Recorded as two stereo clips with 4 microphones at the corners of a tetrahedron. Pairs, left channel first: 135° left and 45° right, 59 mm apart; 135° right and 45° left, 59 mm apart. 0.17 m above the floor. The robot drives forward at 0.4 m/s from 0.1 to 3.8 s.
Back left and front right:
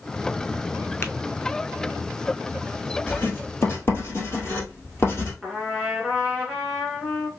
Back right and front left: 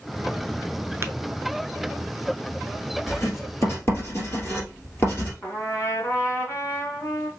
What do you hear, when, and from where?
1.0 s tapping: 90° left, 0.5 m; by 1.1 s 95° left, 0.5 m
3.1 s writing: 175° right, 1.7 m
5.4 s a trumpet: 135° right, 1.7 m